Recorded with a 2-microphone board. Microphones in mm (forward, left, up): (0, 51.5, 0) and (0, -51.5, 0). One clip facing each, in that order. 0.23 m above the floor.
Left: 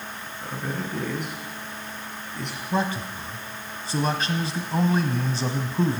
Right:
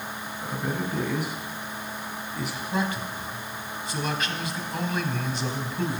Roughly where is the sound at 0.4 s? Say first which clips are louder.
Right 1 dB; centre.